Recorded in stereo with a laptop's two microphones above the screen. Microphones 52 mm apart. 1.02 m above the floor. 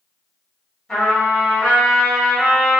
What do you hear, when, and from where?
0.9 s a trumpet: 15° left (ahead or behind), 1.2 m